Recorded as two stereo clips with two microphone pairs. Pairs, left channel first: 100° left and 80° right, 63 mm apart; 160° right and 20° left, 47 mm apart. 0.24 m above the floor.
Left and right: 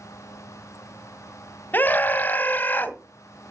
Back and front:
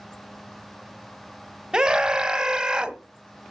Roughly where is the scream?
Left.